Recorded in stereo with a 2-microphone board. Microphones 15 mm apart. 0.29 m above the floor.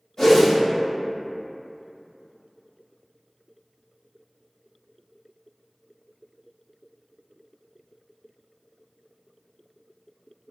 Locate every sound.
0.2 s a whoosh: 40° left (ahead or behind), 1.9 m